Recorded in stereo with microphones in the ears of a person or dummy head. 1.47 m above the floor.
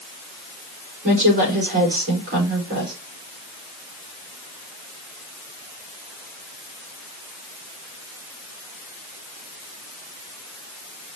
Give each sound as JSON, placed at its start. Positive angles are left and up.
{"t": 1.0, "sound": "a woman speaking", "side_deg": -45, "distance_m": 4.0}